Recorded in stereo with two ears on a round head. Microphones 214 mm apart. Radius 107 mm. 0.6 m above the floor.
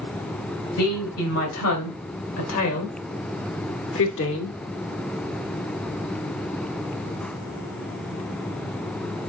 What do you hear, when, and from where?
0.8 s a woman speaking: 70° left (ahead or behind), 3.5 m; by 4.6 s 55° left (ahead or behind), 1.5 m